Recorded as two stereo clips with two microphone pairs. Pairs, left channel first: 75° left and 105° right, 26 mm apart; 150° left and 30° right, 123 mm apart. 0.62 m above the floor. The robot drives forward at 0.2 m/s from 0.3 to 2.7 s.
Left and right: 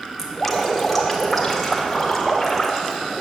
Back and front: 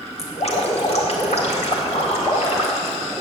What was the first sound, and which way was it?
Dripping, 160° left.